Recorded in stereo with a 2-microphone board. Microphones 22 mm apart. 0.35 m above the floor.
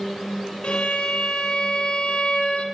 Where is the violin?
60° left (ahead or behind), 1.6 m.